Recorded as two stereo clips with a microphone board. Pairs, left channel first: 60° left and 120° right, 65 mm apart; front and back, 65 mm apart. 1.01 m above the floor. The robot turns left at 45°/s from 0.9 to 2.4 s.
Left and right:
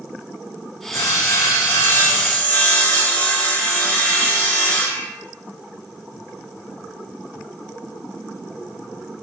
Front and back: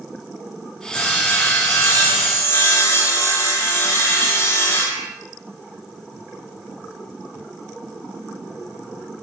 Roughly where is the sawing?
Left.